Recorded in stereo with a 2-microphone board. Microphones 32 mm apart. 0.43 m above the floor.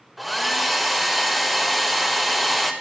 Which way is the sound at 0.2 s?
Centre (ahead or behind).